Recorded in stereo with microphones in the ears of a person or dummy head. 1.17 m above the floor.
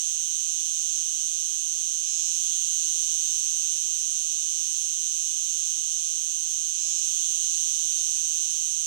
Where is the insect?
50° right (ahead or behind).